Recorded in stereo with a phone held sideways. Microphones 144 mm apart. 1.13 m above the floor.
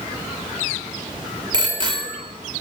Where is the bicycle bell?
35° right (ahead or behind), 3.5 m.